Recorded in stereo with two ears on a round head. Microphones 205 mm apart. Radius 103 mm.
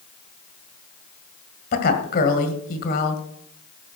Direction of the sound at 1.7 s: 45° left (ahead or behind).